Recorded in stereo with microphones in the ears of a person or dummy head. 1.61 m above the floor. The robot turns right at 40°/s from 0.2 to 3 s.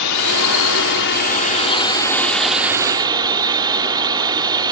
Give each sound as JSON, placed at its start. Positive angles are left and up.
{"t": 0.0, "sound": "a drone", "azimuth_deg": 90}